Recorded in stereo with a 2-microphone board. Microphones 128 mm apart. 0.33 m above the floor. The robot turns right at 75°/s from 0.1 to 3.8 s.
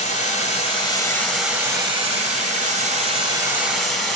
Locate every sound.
0.0 s running water: 80° left, 1.6 m; by 4.2 s straight ahead, 1.6 m